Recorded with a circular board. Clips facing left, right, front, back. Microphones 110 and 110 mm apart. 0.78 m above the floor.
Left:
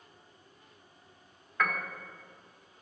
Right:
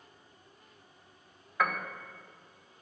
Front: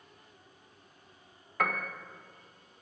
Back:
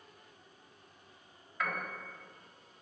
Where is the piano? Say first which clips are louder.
Right 1 dB, front 5 dB; 10° right, 1.9 m.